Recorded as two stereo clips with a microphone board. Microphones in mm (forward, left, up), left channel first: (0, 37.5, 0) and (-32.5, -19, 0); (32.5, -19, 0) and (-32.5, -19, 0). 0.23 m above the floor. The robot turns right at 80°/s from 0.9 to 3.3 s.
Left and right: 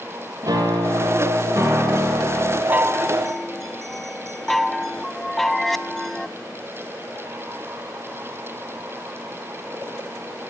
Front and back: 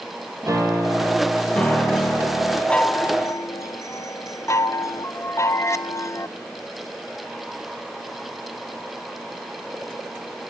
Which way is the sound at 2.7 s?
75° right.